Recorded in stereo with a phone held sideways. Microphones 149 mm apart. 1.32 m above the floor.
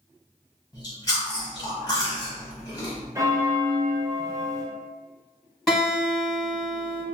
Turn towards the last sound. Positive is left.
turn(degrees=0)  # may be behind; listen again after turning